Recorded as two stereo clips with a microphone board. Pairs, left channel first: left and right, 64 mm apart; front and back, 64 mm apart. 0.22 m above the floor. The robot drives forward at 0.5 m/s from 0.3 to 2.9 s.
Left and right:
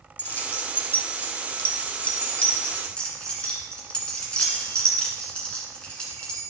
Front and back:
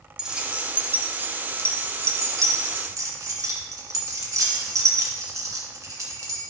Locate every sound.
0.2 s keys jangling: 115° left, 0.9 m; by 6.4 s 165° left, 1.8 m